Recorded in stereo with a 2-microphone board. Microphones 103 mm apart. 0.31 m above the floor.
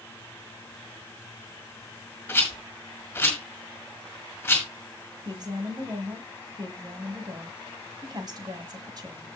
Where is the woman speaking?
40° right (ahead or behind), 2 m.